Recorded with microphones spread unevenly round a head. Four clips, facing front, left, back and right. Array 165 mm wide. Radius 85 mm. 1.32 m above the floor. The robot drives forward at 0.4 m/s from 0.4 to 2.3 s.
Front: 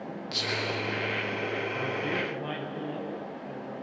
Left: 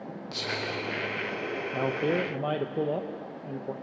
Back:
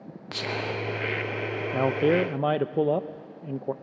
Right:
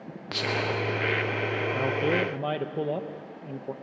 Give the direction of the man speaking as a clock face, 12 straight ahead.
6 o'clock.